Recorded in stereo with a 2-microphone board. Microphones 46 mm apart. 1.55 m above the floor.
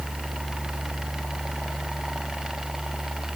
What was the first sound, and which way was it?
Only background noise.